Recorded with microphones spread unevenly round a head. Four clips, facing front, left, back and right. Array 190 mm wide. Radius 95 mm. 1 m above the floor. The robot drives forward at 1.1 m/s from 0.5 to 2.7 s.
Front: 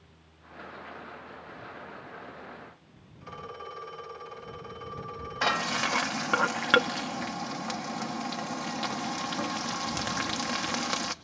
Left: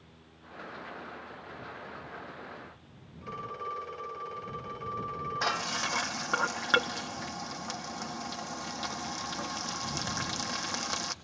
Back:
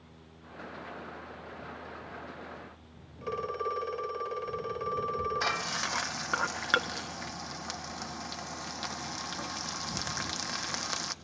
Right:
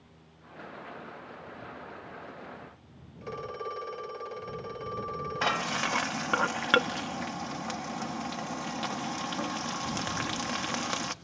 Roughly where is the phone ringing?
Behind right.